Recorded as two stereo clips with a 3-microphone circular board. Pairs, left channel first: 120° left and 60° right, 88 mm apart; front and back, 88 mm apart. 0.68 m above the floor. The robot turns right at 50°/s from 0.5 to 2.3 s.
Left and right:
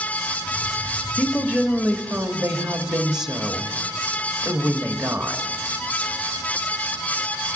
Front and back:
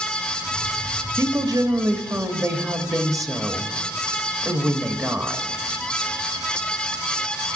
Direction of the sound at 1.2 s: 165° left.